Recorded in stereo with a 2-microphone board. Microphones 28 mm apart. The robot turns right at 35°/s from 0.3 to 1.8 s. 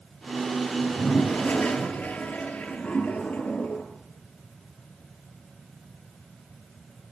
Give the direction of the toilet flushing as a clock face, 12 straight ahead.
10 o'clock.